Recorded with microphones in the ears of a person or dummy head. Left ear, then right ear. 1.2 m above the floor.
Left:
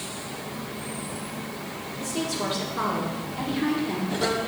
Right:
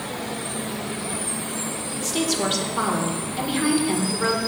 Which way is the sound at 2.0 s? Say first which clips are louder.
Right 5 dB; 25° right (ahead or behind).